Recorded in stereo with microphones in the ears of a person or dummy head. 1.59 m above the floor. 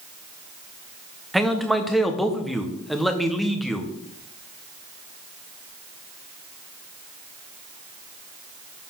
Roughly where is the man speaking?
Centre.